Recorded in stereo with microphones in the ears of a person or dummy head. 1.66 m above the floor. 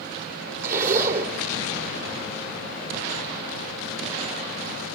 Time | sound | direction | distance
0.6 | a zipper | 50° right (ahead or behind) | 2.5 m